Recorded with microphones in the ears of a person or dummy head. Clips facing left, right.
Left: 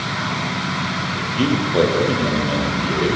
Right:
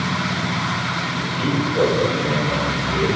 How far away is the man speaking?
About 2 m.